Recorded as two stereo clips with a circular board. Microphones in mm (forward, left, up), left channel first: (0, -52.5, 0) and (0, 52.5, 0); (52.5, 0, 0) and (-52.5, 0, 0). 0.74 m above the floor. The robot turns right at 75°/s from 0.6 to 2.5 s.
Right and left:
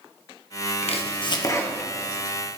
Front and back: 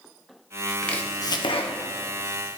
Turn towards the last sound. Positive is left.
turn(degrees=40)